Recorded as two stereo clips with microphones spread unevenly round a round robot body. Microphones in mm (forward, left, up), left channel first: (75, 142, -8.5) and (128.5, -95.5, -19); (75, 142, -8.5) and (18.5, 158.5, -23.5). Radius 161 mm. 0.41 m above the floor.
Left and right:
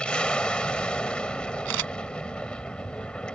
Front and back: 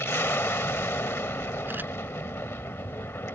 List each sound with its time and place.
0.0 s an aircraft: 20° left
1.6 s a camera shutter: 115° right